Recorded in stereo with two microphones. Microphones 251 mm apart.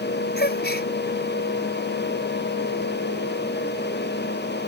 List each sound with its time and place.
0.4 s a gasp: 45° left (ahead or behind)